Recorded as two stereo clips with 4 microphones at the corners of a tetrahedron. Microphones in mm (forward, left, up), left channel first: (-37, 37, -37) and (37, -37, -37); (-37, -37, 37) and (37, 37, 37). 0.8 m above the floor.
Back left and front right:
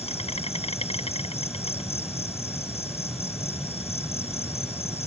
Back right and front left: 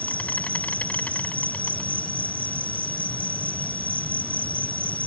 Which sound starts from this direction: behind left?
An insect, at 0.0 s.